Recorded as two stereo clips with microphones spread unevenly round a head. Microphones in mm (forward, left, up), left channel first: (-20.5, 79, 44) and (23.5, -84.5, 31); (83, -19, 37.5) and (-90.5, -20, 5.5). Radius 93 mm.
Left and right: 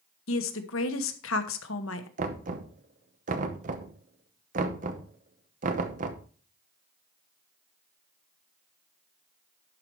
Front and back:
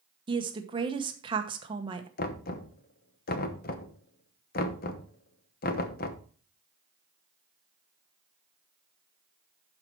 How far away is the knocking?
About 0.9 m.